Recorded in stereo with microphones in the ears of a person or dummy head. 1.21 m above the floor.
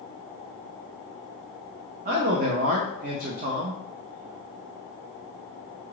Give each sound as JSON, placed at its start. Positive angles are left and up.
{"t": 2.0, "sound": "a man speaking", "side_deg": -45, "distance_m": 0.6}